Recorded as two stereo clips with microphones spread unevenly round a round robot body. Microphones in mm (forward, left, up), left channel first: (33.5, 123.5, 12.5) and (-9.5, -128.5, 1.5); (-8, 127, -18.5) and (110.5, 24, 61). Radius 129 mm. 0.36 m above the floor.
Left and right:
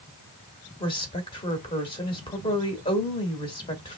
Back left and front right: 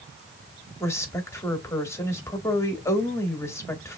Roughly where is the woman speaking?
Behind left.